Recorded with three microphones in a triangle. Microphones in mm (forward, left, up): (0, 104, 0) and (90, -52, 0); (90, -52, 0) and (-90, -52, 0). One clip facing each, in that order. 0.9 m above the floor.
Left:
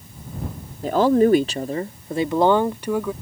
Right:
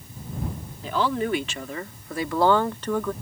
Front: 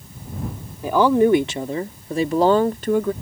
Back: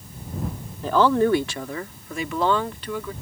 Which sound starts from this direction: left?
A woman speaking, at 0.8 s.